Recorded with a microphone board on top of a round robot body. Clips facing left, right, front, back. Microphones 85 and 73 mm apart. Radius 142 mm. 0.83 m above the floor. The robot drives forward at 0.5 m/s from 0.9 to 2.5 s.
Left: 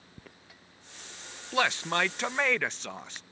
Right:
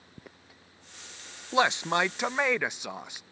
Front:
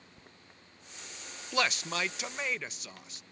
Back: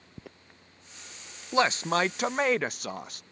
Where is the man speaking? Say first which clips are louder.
Right 3 dB, back 7 dB; 140° right; by 3.2 s 165° right.